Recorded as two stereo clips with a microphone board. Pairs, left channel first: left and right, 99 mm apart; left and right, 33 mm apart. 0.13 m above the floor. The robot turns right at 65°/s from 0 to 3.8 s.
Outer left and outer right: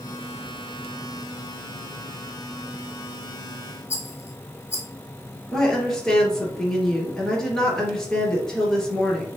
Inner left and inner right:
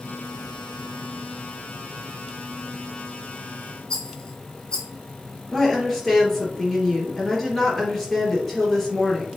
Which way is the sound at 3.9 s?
25° left (ahead or behind).